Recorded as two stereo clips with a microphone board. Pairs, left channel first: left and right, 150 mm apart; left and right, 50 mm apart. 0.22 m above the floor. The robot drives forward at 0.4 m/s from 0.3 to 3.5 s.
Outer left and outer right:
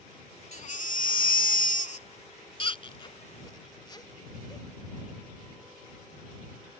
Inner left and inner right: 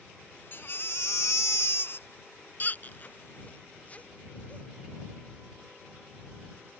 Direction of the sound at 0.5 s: 50° left (ahead or behind).